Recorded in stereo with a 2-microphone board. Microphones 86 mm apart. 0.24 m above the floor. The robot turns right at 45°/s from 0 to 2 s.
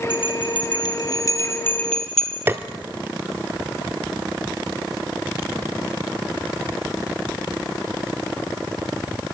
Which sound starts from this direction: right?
Tapping, at 2.5 s.